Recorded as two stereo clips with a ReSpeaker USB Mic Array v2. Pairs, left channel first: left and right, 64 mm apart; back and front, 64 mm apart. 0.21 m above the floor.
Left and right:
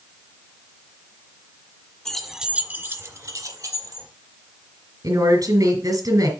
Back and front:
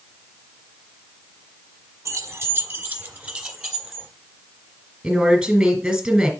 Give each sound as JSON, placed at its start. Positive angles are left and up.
{"t": 2.0, "sound": "keys jangling", "azimuth_deg": 15, "distance_m": 1.3}
{"t": 5.0, "sound": "a woman speaking", "azimuth_deg": -80, "distance_m": 3.0}